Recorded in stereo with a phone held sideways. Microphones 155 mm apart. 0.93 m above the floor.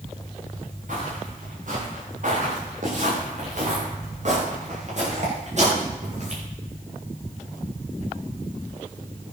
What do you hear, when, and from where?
0.9 s footsteps: 65° right (ahead or behind), 8 m; by 6.4 s 50° right (ahead or behind), 10.5 m